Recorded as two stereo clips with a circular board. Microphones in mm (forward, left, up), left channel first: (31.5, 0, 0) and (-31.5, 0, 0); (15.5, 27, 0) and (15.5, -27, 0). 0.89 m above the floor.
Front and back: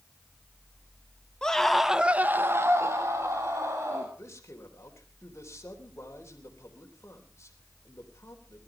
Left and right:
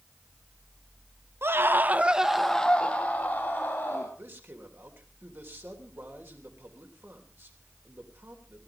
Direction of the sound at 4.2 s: 45° right.